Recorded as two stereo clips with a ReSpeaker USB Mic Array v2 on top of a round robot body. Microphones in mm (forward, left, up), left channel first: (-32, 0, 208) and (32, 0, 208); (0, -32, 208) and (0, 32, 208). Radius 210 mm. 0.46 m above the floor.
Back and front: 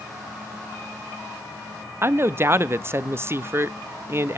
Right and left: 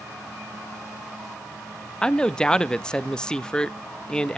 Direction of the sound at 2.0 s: 20° right.